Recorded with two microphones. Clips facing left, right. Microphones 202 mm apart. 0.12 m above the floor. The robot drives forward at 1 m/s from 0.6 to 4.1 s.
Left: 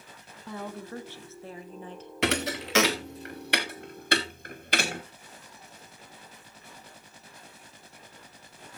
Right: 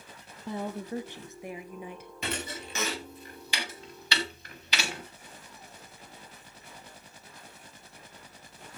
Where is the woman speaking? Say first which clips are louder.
Right 4 dB; 20° right (ahead or behind), 1.1 m; by 2.1 s 10° right (ahead or behind), 2 m.